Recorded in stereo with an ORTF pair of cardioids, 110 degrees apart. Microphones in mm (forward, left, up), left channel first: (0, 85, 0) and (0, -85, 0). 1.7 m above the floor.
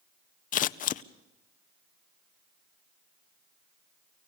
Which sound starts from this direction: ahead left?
Scissors, at 0.5 s.